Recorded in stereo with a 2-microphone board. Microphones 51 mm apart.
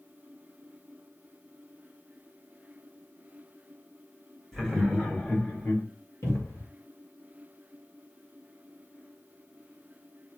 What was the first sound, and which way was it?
Laughter, 10° left (ahead or behind).